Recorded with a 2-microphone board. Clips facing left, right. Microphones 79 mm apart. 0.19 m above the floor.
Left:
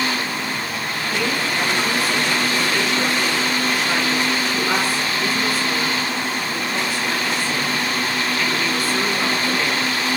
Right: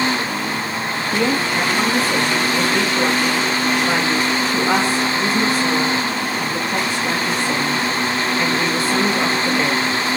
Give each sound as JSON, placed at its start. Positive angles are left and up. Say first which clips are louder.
{"t": 1.1, "sound": "a woman speaking", "louder": "right 4 dB", "side_deg": -30, "distance_m": 4.0}